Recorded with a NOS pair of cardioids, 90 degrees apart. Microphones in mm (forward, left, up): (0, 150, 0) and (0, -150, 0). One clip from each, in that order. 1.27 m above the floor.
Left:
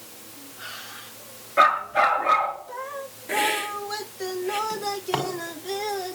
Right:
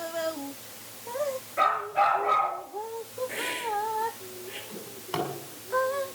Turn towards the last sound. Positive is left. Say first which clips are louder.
# left 8 dB
turn(degrees=55)